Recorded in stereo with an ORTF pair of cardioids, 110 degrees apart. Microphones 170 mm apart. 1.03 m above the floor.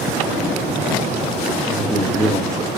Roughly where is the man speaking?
Ahead.